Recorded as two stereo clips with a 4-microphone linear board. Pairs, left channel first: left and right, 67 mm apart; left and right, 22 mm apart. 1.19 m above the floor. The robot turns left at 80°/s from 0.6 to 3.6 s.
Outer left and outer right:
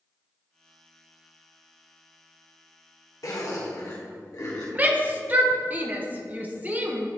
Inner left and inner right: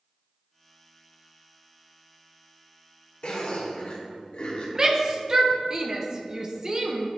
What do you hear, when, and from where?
3.2 s a zipper: 55° left (ahead or behind), 1.6 m; by 4.7 s 65° left (ahead or behind), 1.6 m
4.8 s a shout: 30° right (ahead or behind), 0.8 m